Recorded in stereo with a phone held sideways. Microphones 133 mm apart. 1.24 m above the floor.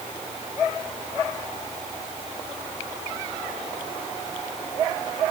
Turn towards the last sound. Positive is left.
No sound to turn to.